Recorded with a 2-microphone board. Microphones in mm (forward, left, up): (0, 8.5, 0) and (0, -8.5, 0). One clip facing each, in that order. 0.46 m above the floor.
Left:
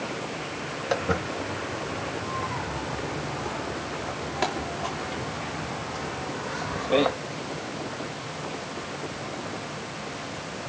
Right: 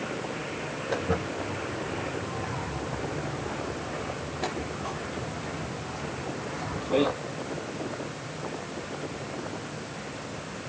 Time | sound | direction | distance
0.9 | footsteps | 85° left | 7 m